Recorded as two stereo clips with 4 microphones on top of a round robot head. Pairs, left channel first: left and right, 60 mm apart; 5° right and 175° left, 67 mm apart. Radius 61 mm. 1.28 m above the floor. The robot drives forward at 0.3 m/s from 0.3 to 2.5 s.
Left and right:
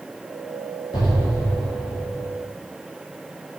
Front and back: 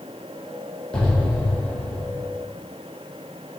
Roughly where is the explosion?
Left.